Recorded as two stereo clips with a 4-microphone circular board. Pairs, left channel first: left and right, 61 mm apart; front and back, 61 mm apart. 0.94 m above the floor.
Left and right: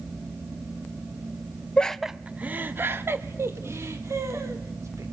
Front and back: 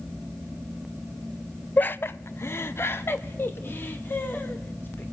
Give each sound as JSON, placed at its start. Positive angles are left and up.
{"t": 1.8, "sound": "laughter", "azimuth_deg": 30, "distance_m": 0.6}